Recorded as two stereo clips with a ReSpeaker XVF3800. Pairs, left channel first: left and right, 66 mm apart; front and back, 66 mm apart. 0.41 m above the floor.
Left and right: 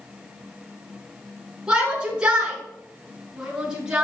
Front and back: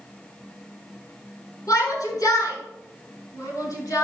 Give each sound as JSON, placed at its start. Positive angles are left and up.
{"t": 1.7, "sound": "a shout", "azimuth_deg": -15, "distance_m": 6.0}